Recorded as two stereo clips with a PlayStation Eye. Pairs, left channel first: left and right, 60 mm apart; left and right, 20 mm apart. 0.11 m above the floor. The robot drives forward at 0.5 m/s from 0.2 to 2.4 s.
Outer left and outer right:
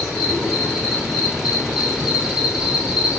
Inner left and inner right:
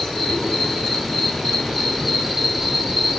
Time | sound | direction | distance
0.0 | an insect | 5° right (ahead or behind) | 2.5 m